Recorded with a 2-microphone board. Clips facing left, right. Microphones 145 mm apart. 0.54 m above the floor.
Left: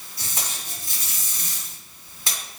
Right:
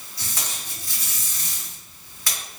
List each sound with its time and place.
0.2 s tape being pulled: 25° left (ahead or behind), 2 m